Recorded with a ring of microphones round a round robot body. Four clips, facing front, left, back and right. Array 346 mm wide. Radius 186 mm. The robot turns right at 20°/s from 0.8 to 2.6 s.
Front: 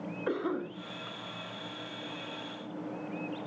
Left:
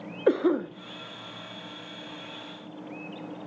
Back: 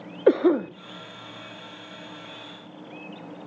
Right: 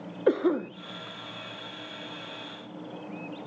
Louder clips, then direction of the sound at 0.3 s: Left 1 dB, back 14 dB; 175° left.